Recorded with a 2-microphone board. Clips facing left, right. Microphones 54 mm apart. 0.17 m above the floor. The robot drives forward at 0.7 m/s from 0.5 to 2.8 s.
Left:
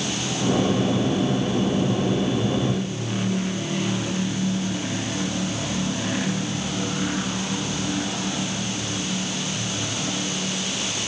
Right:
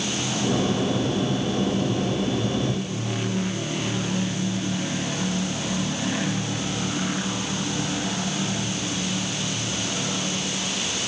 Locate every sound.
Only background noise.